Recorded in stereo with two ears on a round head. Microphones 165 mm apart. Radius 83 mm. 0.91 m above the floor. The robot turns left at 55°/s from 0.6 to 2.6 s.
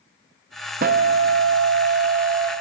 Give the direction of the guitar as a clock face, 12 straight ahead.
2 o'clock.